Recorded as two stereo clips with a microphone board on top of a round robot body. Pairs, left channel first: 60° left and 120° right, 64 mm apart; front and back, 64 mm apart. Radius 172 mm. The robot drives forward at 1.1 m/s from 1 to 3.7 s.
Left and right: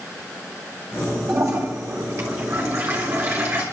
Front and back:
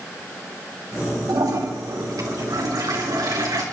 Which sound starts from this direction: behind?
A toilet flushing, at 1.3 s.